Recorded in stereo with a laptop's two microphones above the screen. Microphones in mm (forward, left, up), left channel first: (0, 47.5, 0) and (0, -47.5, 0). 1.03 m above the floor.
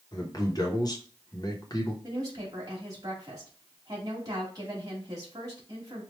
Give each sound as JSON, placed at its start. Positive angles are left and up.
{"t": 0.1, "sound": "a man speaking", "side_deg": 40, "distance_m": 1.0}
{"t": 2.0, "sound": "a woman speaking", "side_deg": -40, "distance_m": 1.7}